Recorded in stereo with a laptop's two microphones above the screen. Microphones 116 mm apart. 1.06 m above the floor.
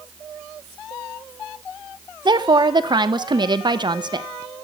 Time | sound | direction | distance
2.2 | a woman speaking | 40° right (ahead or behind) | 0.7 m